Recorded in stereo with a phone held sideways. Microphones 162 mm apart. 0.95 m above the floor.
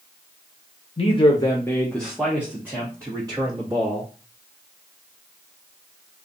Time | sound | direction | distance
1.0 | a man speaking | 40° left (ahead or behind) | 0.7 m